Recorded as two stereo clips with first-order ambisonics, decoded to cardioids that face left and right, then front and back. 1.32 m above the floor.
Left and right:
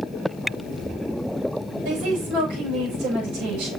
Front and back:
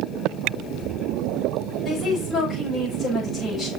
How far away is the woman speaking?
About 6.5 m.